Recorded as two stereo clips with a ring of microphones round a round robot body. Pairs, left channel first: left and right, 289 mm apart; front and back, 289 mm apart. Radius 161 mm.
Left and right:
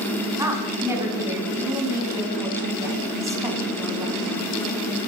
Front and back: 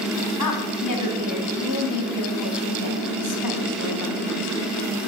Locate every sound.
0.4 s a woman speaking: 10° right, 3 m